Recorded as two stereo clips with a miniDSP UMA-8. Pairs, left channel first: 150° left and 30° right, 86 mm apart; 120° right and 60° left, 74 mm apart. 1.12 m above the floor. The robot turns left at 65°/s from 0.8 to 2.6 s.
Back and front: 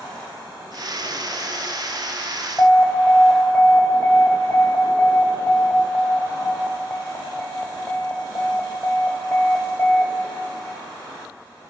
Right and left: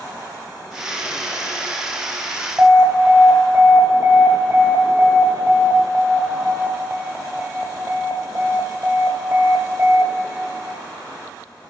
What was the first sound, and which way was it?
An alarm, 110° left.